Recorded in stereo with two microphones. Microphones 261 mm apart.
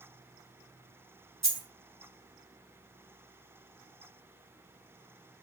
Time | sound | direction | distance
1.4 | a dropped coin | 80° right | 1.5 m